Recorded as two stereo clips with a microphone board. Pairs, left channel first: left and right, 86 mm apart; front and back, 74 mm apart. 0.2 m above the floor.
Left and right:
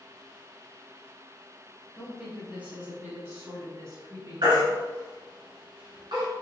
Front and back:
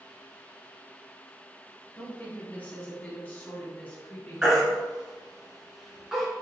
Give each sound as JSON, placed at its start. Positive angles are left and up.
{"t": 1.9, "sound": "a woman speaking", "azimuth_deg": -15, "distance_m": 1.4}
{"t": 4.4, "sound": "a baby crying", "azimuth_deg": -100, "distance_m": 1.6}